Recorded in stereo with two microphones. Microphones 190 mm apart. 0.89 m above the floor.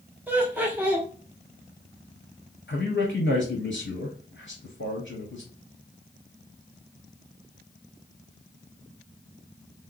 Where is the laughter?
10° right (ahead or behind), 1.2 m.